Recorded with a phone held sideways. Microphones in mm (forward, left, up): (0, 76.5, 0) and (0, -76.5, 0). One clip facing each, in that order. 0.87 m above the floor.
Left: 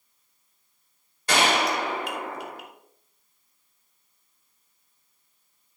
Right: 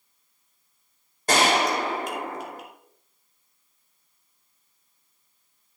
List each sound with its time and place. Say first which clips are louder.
1.3 s a gunshot: right 2 dB; 45° right (ahead or behind), 2.5 m